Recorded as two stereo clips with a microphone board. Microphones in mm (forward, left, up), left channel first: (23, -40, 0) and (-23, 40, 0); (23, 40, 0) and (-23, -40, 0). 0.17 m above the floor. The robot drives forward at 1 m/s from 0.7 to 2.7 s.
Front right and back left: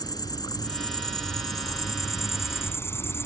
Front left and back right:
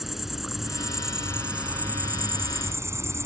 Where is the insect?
35° right; by 3.3 s 95° right.